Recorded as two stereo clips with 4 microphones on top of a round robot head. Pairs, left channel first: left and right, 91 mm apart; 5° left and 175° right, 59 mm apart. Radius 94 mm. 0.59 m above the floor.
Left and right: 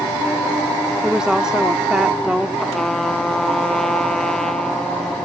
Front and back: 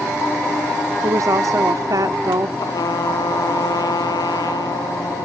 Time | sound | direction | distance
1.0 | a woman speaking | 175° right | ?
2.6 | a trumpet | 5° left | ?